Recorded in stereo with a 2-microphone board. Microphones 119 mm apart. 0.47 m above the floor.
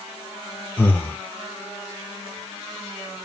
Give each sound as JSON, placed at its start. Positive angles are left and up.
{"t": 0.8, "sound": "breathing", "side_deg": 20, "distance_m": 0.8}